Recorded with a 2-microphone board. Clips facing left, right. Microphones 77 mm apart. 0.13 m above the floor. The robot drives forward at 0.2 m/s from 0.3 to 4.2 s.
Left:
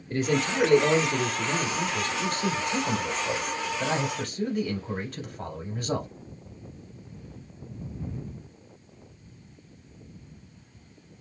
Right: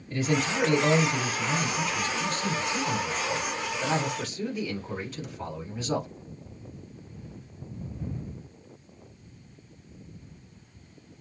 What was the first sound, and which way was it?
A man speaking, 55° left (ahead or behind).